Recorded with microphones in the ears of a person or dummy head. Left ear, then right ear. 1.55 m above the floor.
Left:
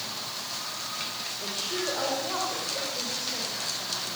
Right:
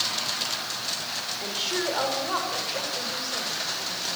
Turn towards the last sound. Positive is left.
turn(degrees=-35)  # may be behind; listen again after turning